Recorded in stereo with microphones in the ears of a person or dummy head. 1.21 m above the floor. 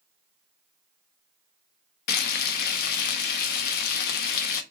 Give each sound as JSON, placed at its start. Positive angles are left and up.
{"t": 2.1, "sound": "frying", "side_deg": 55, "distance_m": 0.5}